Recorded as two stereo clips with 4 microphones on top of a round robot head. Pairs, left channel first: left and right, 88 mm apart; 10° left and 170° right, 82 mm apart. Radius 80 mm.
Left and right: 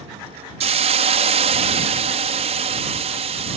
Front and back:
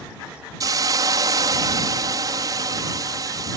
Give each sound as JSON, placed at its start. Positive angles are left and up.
{"t": 0.6, "sound": "a hiss", "azimuth_deg": -110}